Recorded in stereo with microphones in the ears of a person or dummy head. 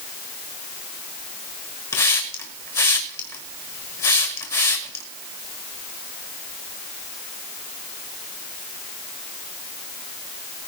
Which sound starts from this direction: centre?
A hiss, at 1.9 s.